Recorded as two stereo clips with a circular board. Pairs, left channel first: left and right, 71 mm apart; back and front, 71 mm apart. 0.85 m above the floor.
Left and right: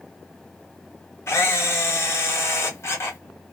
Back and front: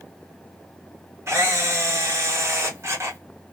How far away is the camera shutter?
About 0.9 m.